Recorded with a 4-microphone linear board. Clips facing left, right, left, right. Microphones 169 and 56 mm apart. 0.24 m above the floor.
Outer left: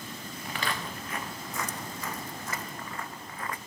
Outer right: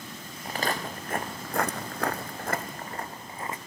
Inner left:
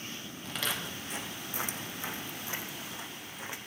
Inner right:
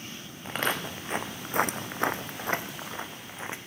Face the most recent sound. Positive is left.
turn(degrees=-25)  # may be behind; listen again after turning